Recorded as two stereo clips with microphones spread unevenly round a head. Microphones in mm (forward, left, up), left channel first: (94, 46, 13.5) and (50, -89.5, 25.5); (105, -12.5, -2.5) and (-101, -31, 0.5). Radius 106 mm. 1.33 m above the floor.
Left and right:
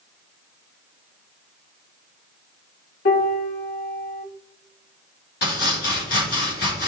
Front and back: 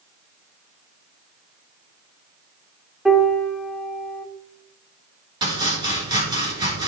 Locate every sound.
3.0 s a piano: 100° left, 1.4 m
5.4 s chopping: 115° left, 3 m